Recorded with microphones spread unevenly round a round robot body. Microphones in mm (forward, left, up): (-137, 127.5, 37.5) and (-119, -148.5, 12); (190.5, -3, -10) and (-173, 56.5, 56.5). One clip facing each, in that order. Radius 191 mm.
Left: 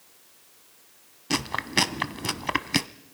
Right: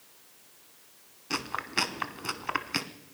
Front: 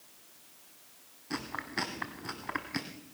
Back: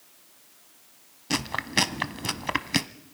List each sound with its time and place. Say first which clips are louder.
1.3 s chewing: left 8 dB, back 8 dB; 140° left, 1.0 m